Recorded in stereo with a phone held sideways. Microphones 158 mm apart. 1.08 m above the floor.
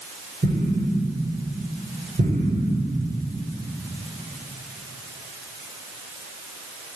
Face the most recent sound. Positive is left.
turn(degrees=-65)  # may be behind; listen again after turning